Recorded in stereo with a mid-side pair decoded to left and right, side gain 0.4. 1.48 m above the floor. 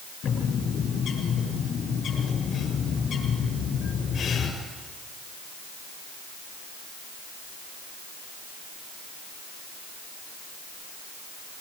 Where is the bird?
65° left, 7.5 m.